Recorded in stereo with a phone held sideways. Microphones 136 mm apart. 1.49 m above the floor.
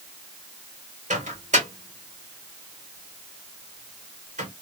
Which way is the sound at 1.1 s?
60° right (ahead or behind).